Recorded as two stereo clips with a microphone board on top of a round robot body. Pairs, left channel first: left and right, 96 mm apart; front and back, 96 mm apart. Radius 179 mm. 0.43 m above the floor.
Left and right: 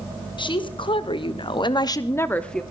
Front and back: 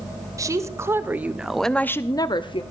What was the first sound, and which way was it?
A woman speaking, 125° left.